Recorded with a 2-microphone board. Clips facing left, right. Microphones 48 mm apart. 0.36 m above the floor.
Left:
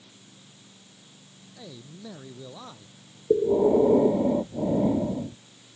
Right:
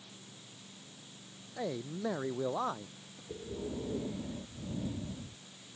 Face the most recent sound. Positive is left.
turn(degrees=80)